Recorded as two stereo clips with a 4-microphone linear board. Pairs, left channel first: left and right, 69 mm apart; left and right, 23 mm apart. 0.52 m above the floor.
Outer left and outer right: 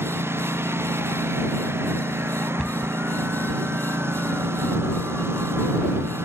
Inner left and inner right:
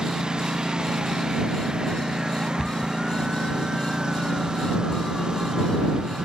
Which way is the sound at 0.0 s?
35° right (ahead or behind).